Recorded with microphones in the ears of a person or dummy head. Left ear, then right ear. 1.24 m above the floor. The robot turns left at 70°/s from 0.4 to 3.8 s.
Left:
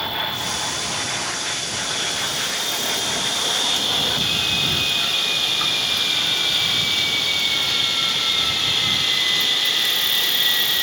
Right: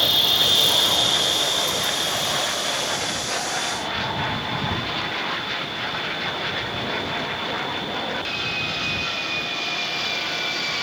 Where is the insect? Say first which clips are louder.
Right 6 dB; 50° right; by 10.8 s 75° left.